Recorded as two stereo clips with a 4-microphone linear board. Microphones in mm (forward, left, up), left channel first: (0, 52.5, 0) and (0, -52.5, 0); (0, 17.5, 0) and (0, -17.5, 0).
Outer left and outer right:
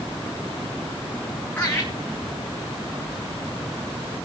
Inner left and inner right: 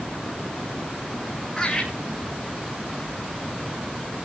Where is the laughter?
15° left (ahead or behind), 2.5 m.